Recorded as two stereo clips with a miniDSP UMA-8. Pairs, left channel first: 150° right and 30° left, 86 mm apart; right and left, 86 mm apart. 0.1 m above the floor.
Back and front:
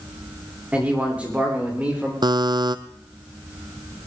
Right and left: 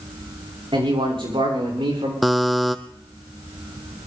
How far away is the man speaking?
About 7 m.